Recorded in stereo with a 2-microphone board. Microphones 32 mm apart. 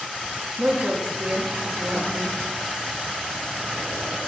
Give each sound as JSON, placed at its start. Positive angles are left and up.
{"t": 0.6, "sound": "a woman speaking", "side_deg": -60, "distance_m": 1.5}